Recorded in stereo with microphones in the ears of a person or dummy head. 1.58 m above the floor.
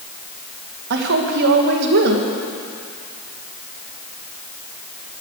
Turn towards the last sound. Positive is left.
turn(degrees=-60)  # may be behind; listen again after turning